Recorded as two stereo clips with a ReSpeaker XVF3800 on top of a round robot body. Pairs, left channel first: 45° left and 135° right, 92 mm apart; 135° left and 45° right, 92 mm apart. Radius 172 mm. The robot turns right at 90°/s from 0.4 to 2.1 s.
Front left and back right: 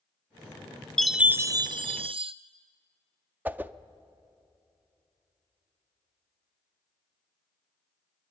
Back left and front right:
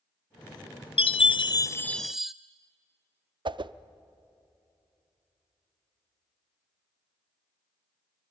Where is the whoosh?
65° right, 0.6 m.